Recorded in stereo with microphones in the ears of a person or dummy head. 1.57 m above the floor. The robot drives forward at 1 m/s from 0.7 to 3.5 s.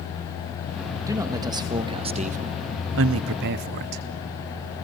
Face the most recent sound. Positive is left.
turn(degrees=-55)  # may be behind; listen again after turning